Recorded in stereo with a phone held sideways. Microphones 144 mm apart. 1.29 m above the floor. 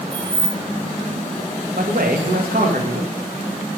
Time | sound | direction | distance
0.1 | keys jangling | 40° right (ahead or behind) | 1.5 m
1.8 | a man speaking | 80° right | 1.1 m